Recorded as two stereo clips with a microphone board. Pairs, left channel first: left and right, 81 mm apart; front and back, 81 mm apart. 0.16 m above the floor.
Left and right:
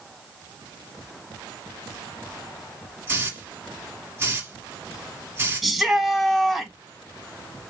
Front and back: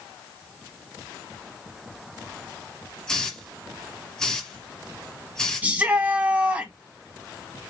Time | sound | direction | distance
3.1 | a hiss | 70° right | 1.1 m
5.6 | a shout | straight behind | 1.1 m